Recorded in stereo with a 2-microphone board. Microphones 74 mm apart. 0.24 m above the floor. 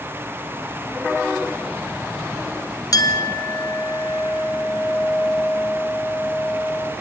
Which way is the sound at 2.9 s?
55° left (ahead or behind).